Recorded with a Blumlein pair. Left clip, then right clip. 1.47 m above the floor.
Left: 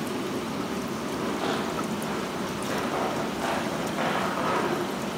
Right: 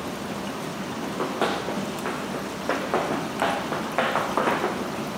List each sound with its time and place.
1.0 s running footsteps: 30° right, 5.5 m